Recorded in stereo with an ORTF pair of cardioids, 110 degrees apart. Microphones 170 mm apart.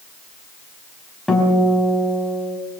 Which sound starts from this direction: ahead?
A guitar, at 1.3 s.